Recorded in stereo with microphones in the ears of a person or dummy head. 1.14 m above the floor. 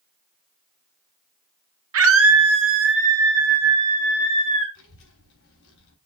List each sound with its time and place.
1.9 s a scream: 70° right (ahead or behind), 1.2 m; by 4.7 s 40° right (ahead or behind), 2.5 m
4.8 s a child speaking: 70° left (ahead or behind), 4 m